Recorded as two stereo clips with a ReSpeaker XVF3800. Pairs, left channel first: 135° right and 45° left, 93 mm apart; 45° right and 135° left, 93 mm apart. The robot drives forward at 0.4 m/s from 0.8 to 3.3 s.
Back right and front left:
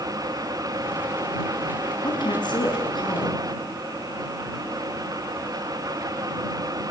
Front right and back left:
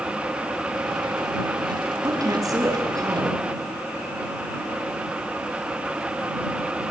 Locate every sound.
2.0 s a woman speaking: 175° right, 6 m